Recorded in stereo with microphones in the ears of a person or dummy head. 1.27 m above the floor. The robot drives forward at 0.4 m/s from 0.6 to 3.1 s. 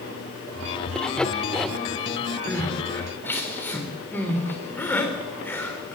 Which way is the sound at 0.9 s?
5° left (ahead or behind).